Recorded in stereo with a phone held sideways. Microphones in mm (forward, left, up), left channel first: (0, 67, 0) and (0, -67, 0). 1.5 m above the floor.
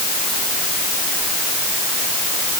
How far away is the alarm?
No alarm in this recording.